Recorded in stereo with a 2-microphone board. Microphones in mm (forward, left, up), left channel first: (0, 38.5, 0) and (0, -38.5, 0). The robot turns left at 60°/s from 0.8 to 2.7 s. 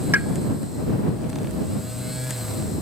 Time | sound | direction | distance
0.1 | a pop | 30° right (ahead or behind) | ?